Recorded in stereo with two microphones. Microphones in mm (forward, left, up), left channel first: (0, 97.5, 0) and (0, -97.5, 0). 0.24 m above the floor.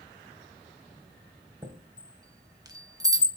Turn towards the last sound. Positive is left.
turn(degrees=-20)  # may be behind; listen again after turning